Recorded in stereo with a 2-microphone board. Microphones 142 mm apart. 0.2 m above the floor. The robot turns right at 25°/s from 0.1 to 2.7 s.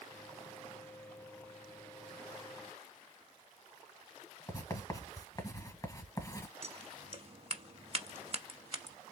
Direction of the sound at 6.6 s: 45° right (ahead or behind).